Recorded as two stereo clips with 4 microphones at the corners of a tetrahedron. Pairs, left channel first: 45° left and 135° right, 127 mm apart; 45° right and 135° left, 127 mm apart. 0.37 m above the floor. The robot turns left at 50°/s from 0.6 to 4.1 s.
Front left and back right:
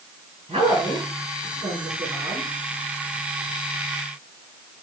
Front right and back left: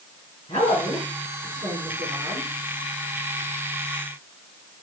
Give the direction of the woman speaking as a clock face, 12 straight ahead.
3 o'clock.